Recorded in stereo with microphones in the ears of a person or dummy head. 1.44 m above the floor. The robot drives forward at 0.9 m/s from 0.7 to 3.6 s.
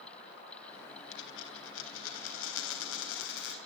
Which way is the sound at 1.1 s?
65° left (ahead or behind).